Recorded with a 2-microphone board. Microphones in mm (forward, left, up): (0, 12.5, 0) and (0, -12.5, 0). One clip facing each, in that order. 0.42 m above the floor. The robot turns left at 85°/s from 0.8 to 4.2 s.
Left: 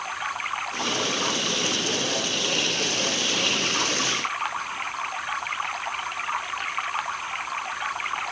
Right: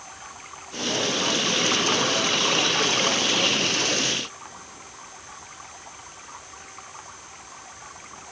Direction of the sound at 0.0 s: 50° left.